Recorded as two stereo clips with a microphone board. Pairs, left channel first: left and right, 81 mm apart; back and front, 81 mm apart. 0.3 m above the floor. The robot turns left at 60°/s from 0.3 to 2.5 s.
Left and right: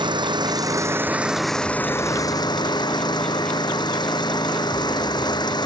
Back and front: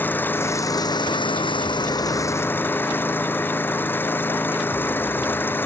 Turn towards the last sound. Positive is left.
turn(degrees=115)